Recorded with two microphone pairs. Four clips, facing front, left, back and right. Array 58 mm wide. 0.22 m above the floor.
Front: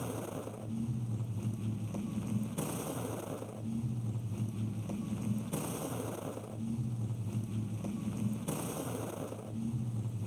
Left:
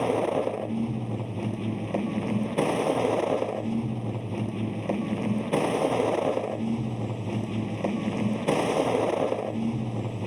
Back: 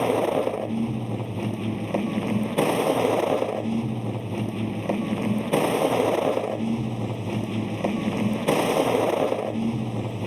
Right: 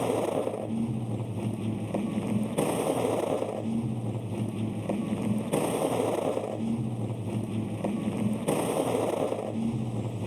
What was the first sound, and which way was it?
A vehicle, 155° left.